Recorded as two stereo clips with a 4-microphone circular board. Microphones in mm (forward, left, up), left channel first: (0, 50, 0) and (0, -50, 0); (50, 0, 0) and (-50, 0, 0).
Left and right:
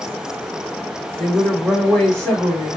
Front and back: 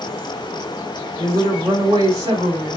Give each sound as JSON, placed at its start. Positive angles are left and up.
{"t": 1.2, "sound": "a woman speaking", "azimuth_deg": 170, "distance_m": 1.9}